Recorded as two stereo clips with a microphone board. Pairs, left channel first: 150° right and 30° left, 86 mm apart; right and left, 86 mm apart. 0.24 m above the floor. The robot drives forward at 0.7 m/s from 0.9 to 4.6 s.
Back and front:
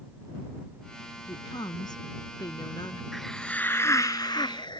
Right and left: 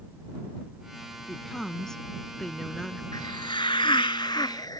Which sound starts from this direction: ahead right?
A hiss, at 3.1 s.